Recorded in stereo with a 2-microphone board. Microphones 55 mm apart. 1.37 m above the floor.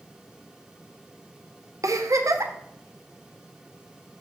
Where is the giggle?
80° right, 0.7 m.